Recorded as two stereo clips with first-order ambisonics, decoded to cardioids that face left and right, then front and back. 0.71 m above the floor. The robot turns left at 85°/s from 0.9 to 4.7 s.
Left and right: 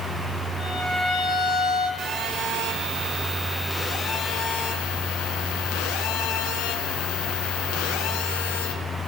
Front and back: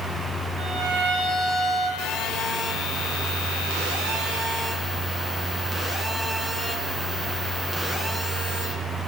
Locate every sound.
0.6 s a violin: 165° left, 3.5 m; by 1.9 s 85° left, 3.5 m
2.0 s a phone buzzing: 30° right, 2.5 m; by 8.7 s 100° left, 2.5 m